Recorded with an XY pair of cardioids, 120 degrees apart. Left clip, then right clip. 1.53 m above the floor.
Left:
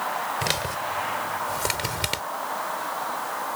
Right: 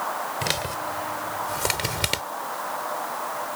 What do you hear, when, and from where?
0.4 s a man speaking: 5° left; by 2.2 s 15° right